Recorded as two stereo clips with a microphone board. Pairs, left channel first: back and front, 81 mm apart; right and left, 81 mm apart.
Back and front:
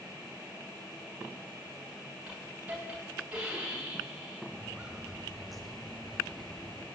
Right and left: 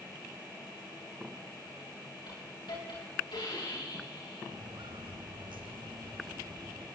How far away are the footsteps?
About 2 m.